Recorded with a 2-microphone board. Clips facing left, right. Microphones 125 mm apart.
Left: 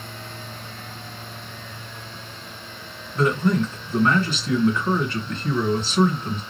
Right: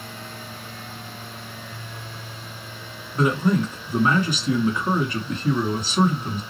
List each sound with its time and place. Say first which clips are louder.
3.1 s a man speaking: even; 10° right (ahead or behind), 2 m